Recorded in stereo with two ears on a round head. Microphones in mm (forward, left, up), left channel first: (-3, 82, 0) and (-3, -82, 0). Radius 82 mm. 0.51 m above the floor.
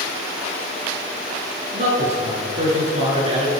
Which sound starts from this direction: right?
A man speaking, at 1.7 s.